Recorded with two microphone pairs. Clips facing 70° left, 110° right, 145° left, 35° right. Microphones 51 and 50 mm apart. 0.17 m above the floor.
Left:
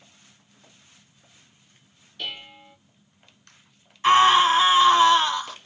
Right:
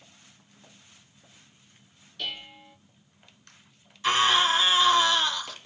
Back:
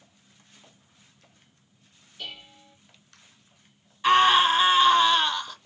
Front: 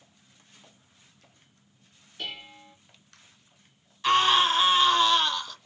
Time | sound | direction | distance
2.2 | dishes clattering | 10° right | 1.9 m
4.0 | a scream | 70° left | 1.2 m